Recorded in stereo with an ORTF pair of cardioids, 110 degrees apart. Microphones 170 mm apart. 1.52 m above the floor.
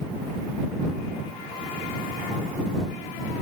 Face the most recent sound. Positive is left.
No sound to turn to.